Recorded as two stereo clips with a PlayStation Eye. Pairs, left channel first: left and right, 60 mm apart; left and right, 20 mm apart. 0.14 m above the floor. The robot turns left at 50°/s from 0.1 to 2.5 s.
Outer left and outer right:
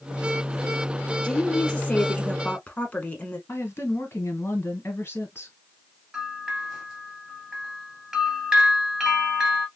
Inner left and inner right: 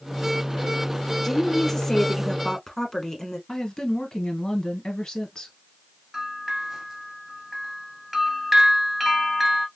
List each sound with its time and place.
1.2 s a woman speaking: 15° left (ahead or behind), 1.1 m; by 3.4 s 25° left (ahead or behind), 1.1 m
3.5 s a woman speaking: 40° left (ahead or behind), 1.5 m
6.1 s a bell: 15° right (ahead or behind), 1.4 m